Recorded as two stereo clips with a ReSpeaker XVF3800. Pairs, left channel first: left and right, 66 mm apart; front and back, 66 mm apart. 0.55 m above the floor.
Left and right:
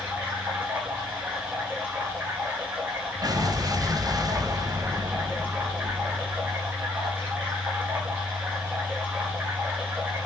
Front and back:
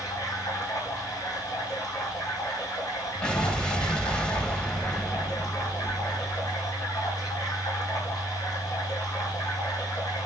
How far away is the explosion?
About 1.7 m.